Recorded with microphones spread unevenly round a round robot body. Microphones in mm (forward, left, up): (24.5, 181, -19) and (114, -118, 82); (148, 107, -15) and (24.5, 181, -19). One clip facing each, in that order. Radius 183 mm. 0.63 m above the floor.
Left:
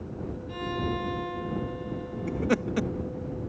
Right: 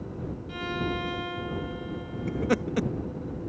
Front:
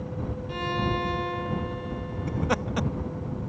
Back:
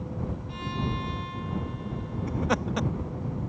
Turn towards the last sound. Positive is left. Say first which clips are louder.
# even, even
turn(degrees=60)